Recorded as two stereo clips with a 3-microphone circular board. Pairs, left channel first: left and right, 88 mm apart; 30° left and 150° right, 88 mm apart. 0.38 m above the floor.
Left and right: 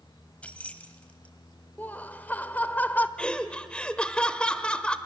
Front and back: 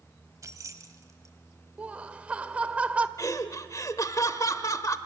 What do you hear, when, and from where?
0.4 s keys jangling: 165° left, 1.4 m
1.8 s laughter: 145° left, 1.0 m
3.2 s laughter: 20° left, 1.3 m